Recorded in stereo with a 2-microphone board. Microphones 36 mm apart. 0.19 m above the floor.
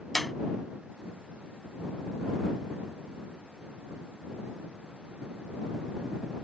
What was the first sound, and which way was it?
A clap, 5° left (ahead or behind).